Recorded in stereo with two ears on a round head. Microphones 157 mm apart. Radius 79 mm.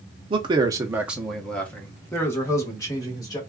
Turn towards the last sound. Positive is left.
turn(degrees=20)  # may be behind; listen again after turning